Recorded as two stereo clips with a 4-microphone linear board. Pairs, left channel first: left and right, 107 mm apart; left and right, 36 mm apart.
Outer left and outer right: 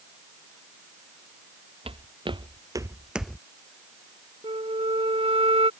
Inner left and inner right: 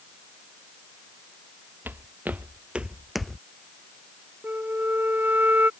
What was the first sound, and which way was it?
Footsteps, 60° right (ahead or behind).